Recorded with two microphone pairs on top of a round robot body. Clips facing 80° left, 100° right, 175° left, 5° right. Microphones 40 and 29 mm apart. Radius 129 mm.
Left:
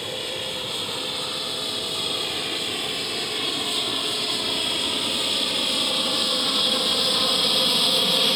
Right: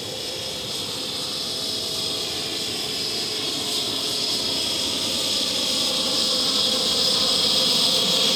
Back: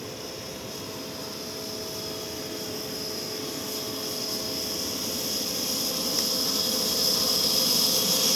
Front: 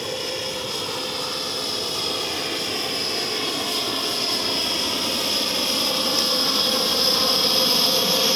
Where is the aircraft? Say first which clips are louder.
Left 2 dB, front 10 dB; 15° left.